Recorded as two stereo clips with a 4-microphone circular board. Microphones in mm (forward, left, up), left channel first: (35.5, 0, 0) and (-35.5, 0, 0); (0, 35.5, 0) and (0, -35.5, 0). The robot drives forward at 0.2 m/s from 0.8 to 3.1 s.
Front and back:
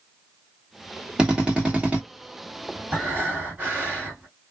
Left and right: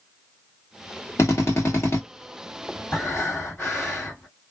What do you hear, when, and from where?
1.2 s a drill: 110° left, 1.2 m; by 2.0 s 120° left, 1.3 m
2.9 s breathing: 130° left, 1.7 m